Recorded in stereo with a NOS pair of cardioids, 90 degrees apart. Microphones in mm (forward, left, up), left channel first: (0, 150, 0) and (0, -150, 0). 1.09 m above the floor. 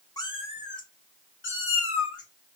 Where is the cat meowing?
15° left, 1.3 m; by 2.6 s 55° left, 1.9 m.